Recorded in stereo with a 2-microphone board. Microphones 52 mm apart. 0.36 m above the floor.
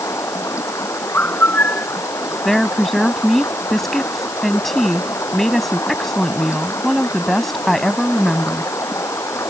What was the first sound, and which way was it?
Running water, 70° left (ahead or behind).